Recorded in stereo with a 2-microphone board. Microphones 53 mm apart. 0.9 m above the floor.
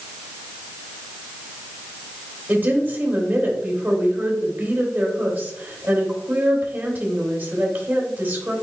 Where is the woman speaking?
40° right (ahead or behind), 3 m.